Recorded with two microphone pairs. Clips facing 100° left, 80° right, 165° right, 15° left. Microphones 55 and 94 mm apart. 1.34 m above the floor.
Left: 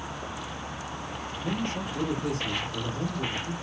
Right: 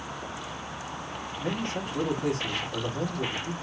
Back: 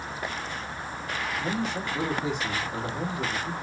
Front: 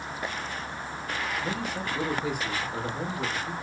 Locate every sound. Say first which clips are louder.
1.4 s a man speaking: even, back 2 dB; 95° right, 3.5 m